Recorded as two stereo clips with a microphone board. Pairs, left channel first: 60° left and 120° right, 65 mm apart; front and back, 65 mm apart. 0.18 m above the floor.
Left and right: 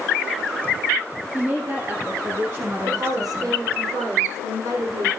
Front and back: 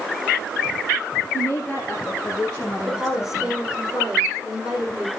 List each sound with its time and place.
1.3 s a woman speaking: 65° right, 3 m; by 3.6 s 100° right, 2 m
2.8 s a woman speaking: 105° right, 7 m